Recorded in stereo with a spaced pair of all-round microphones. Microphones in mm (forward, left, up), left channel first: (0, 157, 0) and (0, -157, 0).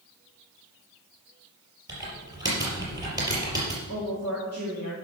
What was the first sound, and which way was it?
Typing on a keyboard, 10° right (ahead or behind).